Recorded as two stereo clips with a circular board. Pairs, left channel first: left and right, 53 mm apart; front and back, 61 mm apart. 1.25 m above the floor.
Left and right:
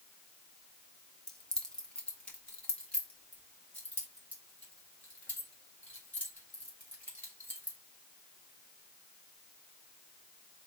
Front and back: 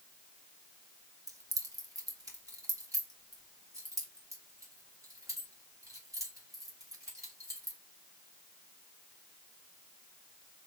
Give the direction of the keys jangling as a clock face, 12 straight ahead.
6 o'clock.